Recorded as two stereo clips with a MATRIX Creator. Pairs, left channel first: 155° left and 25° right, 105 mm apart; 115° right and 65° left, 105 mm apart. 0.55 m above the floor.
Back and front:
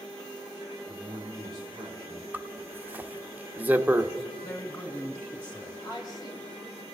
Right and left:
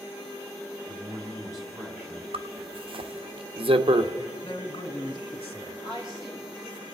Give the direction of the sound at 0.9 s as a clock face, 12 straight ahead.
11 o'clock.